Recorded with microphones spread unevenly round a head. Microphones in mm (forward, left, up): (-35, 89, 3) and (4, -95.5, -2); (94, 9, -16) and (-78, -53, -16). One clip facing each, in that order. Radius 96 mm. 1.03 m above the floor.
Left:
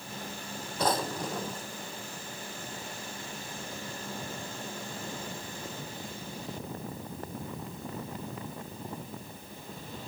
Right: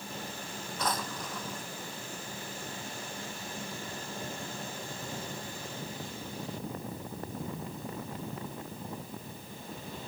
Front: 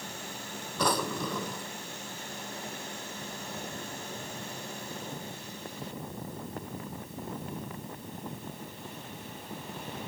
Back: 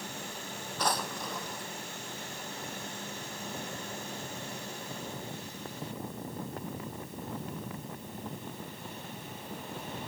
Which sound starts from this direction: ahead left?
A drawer, at 0.8 s.